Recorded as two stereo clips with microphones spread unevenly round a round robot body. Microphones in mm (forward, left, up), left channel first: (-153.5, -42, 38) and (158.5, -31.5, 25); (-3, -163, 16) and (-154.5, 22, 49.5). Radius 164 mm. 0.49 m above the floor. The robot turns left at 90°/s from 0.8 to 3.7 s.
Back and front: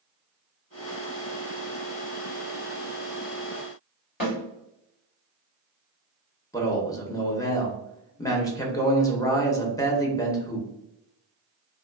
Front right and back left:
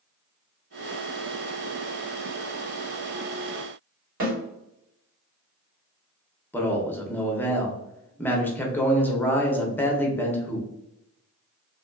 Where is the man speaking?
105° right, 0.7 m.